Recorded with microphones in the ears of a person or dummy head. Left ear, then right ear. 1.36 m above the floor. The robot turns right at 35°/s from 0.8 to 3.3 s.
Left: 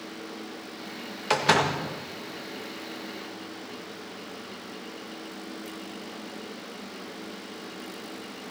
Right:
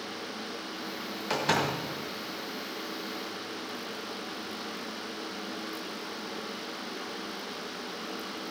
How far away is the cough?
I don't hear a cough.